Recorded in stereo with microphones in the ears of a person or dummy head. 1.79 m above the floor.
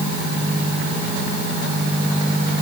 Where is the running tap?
I don't hear a running tap.